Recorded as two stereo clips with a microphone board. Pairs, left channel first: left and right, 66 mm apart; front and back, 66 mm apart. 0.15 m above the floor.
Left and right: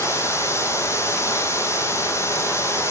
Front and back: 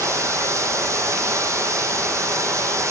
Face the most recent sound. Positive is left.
turn(degrees=135)